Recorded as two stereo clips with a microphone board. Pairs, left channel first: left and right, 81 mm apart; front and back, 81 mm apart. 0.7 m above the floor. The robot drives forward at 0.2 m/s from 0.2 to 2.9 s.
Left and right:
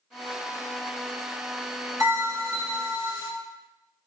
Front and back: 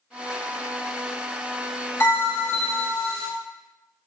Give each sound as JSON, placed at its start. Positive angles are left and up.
{"t": 2.0, "sound": "a bell", "azimuth_deg": -55, "distance_m": 2.0}